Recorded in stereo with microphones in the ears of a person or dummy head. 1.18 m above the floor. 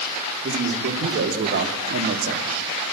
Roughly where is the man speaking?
Right.